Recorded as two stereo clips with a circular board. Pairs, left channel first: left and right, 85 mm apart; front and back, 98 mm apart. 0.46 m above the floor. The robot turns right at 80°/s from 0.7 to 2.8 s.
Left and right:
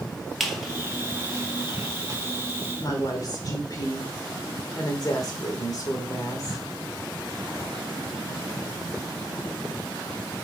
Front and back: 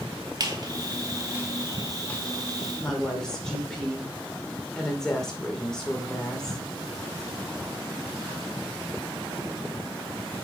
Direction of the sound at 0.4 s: Straight behind.